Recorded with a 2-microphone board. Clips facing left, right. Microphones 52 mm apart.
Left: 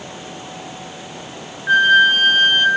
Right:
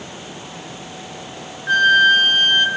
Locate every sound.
1.7 s a flute: 10° left (ahead or behind), 2.5 m